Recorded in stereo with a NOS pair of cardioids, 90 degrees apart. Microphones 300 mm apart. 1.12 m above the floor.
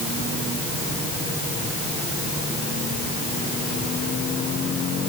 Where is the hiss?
I don't hear a hiss.